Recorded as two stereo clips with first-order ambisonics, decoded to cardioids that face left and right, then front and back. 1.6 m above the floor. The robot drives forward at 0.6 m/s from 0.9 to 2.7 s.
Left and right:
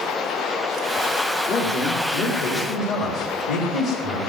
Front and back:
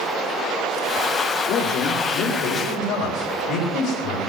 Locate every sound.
1.5 s a man speaking: 55° left, 3.5 m; by 4.2 s 65° left, 3.5 m